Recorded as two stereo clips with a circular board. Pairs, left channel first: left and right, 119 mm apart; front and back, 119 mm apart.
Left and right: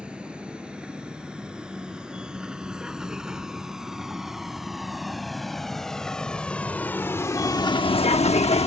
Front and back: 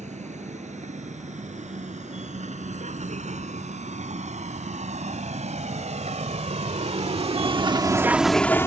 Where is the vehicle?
170° right; by 8.7 s 65° left.